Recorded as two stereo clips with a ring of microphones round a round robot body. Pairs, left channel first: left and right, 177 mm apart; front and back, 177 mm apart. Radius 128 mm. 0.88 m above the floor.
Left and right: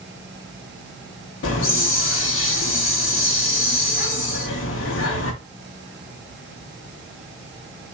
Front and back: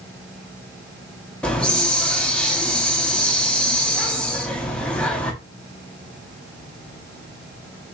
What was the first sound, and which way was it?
A hiss, 85° left.